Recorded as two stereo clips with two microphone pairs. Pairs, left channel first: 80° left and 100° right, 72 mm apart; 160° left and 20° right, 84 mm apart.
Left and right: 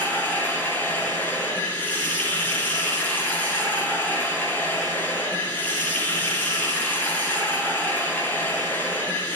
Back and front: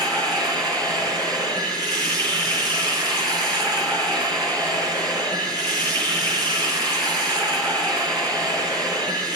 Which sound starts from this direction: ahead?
Running water, at 0.0 s.